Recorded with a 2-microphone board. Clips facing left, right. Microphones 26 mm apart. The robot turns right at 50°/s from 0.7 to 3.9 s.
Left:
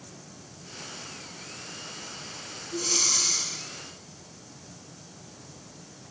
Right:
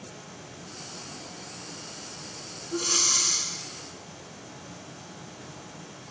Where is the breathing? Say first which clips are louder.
Right 1 dB; 70° right, 3 m; by 3.5 s 30° right, 3 m.